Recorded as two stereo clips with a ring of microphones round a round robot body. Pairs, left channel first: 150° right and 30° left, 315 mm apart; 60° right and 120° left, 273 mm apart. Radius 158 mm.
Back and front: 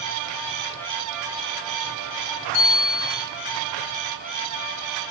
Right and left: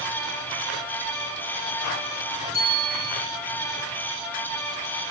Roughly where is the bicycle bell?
Behind.